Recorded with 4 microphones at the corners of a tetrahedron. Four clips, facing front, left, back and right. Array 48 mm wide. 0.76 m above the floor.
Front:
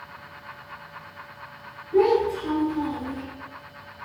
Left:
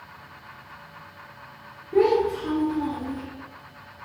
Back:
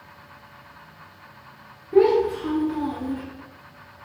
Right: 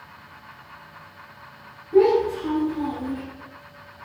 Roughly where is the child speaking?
Behind.